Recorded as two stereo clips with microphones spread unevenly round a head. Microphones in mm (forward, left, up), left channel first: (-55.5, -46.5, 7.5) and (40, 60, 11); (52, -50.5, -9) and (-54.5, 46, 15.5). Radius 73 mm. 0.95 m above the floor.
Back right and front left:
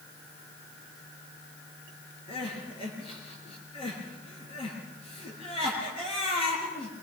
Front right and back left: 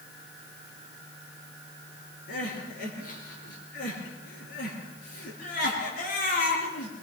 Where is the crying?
75° right, 5 m.